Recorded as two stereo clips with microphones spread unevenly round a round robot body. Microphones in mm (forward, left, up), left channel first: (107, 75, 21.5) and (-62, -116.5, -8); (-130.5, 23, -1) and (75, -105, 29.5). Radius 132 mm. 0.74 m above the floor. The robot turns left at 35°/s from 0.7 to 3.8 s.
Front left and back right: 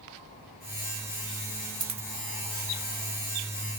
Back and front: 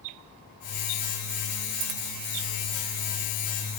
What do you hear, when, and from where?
1.8 s a dropped coin: 55° right, 0.6 m; by 2.1 s 65° right, 0.6 m